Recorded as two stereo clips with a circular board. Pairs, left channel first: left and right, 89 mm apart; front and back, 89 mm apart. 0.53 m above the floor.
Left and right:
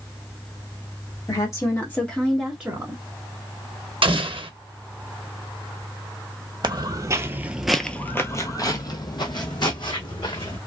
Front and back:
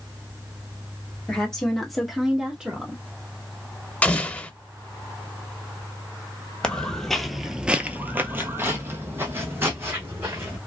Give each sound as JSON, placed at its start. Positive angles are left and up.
{"t": 1.3, "sound": "a woman speaking", "azimuth_deg": 75, "distance_m": 1.4}
{"t": 4.0, "sound": "an explosion", "azimuth_deg": -75, "distance_m": 0.6}
{"t": 6.6, "sound": "footsteps", "azimuth_deg": -75, "distance_m": 0.8}